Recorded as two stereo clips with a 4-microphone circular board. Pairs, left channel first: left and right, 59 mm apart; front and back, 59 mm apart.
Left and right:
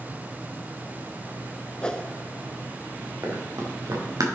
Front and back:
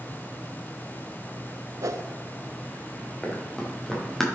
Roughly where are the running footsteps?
Right.